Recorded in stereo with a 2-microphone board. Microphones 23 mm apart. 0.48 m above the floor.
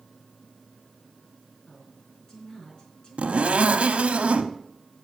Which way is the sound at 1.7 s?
40° left (ahead or behind).